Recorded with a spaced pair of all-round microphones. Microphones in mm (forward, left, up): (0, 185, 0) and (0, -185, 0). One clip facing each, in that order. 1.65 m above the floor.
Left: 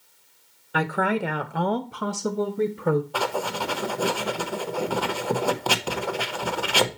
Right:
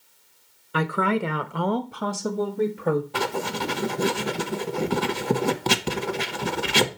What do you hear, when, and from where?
0.7 s a woman speaking: 10° right (ahead or behind), 1.0 m; by 3.0 s 10° left (ahead or behind), 1.1 m
3.1 s writing: 35° right (ahead or behind), 0.6 m